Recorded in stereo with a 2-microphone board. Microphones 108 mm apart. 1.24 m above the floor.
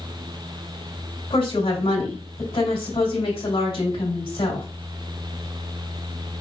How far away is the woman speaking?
About 2.5 m.